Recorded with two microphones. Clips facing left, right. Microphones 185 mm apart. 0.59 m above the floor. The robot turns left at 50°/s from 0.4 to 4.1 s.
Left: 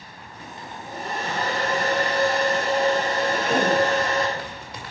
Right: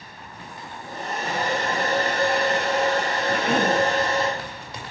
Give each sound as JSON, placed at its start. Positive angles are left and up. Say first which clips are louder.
{"t": 0.6, "sound": "a hair dryer", "louder": "left 1 dB", "azimuth_deg": 25, "distance_m": 6.5}
{"t": 3.3, "sound": "a cough", "louder": "right 1 dB", "side_deg": -55, "distance_m": 5.5}